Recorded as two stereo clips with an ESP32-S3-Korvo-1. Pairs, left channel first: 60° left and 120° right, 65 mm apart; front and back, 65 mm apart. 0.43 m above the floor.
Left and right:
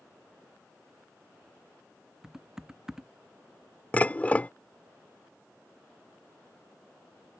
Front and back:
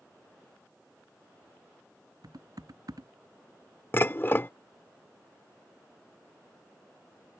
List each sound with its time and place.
2.2 s typing on a keyboard: 160° left
3.9 s dishes clattering: 15° left